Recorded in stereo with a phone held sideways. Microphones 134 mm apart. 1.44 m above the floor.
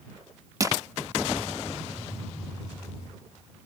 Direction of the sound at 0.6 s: 30° right (ahead or behind).